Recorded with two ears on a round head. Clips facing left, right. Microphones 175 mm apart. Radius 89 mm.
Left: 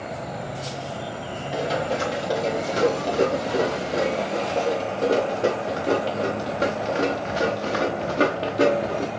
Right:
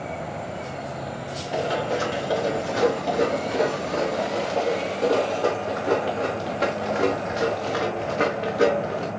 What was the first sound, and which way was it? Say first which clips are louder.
Running footsteps: even; 25° left (ahead or behind).